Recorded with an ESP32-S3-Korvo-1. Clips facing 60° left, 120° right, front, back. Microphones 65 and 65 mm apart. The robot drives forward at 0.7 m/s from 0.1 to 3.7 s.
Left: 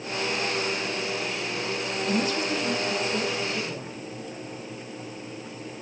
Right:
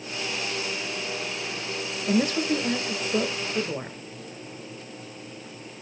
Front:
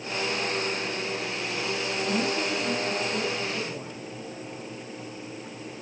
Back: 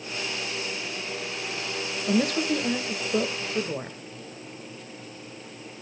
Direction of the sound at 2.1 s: 165° right.